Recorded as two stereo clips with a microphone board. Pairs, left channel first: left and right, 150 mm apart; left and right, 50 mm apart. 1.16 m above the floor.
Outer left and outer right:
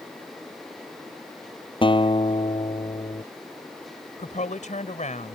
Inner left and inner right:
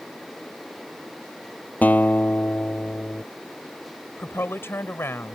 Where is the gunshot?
No gunshot in this recording.